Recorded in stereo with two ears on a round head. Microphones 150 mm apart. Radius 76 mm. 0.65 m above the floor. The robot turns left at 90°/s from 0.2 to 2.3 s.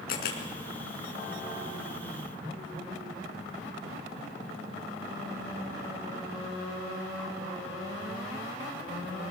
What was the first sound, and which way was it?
A camera shutter, 60° left (ahead or behind).